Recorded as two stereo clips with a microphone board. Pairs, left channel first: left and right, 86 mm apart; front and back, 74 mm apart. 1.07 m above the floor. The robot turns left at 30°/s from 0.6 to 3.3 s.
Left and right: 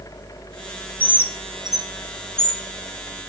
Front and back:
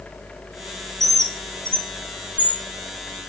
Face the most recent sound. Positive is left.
turn(degrees=85)